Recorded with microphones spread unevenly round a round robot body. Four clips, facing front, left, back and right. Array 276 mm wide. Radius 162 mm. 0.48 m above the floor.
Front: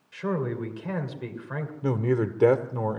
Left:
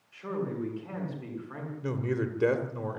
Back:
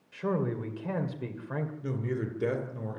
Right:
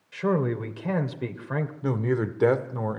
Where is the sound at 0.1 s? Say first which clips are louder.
Right 8 dB, front 2 dB; 75° right, 2.5 m.